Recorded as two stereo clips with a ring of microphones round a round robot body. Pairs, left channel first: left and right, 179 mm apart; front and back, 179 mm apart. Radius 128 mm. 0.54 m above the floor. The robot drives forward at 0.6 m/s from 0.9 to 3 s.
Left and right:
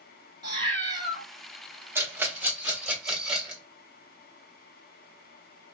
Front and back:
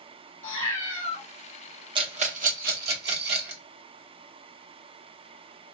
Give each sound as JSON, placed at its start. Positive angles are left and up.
{"t": 0.4, "sound": "a cat meowing", "azimuth_deg": -25, "distance_m": 1.7}
{"t": 1.9, "sound": "a rattle", "azimuth_deg": -155, "distance_m": 0.7}